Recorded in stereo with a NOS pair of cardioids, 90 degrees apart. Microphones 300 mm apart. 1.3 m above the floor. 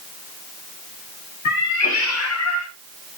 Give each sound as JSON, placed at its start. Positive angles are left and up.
{"t": 1.4, "sound": "a cat meowing", "azimuth_deg": 65, "distance_m": 3.0}